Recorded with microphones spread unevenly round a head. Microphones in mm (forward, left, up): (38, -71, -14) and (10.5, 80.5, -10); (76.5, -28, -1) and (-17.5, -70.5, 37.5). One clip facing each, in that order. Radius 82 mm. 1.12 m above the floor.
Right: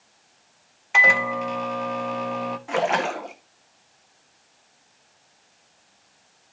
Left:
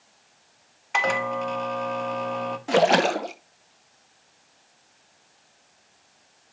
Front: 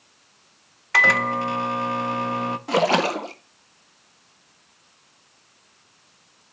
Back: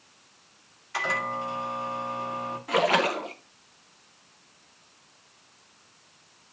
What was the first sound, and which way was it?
A microwave, 5° left.